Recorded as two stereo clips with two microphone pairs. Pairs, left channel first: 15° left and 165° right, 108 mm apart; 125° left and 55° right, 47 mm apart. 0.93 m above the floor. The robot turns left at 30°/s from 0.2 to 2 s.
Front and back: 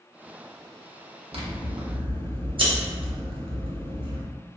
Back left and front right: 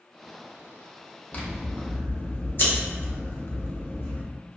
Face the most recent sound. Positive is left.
turn(degrees=160)